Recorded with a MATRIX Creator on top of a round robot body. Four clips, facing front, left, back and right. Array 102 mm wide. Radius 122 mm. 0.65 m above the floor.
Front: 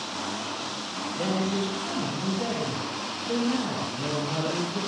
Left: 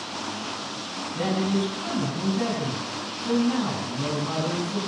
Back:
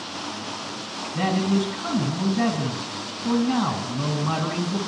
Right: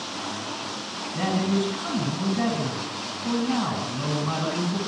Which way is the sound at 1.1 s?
165° right.